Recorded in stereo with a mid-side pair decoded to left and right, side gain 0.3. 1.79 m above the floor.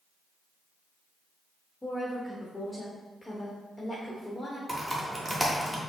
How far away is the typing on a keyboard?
About 1.1 m.